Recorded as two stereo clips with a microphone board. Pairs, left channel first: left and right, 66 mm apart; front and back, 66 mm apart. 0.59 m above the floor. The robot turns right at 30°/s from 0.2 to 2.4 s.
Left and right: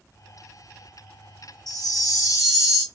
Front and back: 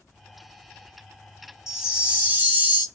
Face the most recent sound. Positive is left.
turn(degrees=120)